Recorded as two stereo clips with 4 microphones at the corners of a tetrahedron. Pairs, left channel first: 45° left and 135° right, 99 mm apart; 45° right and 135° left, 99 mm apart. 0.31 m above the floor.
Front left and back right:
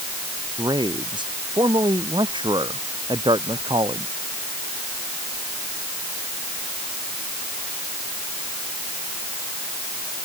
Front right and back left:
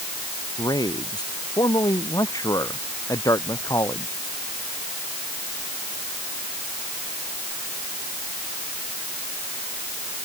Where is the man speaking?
90° right; by 4.1 s 100° right.